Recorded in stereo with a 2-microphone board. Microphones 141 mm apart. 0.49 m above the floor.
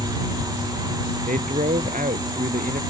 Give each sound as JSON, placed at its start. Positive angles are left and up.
{"t": 1.3, "sound": "a man speaking", "side_deg": -70}